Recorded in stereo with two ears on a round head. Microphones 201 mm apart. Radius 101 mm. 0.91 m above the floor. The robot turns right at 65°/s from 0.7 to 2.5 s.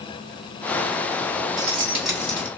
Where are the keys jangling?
35° right, 1.7 m; by 2.5 s 25° left, 1.7 m.